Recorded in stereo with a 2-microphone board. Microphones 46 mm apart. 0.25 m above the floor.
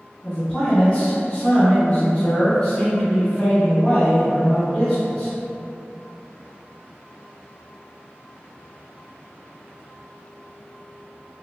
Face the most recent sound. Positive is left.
turn(degrees=25)  # may be behind; listen again after turning